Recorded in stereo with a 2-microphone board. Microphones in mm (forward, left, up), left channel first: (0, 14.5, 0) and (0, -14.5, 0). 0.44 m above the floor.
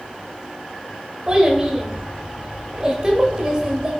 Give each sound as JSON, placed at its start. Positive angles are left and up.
{"t": 1.3, "sound": "a child speaking", "side_deg": -25, "distance_m": 0.9}